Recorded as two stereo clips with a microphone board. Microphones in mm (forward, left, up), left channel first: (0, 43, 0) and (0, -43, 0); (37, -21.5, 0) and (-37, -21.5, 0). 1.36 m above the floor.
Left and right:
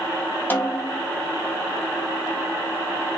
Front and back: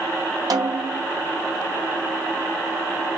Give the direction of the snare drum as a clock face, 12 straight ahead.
7 o'clock.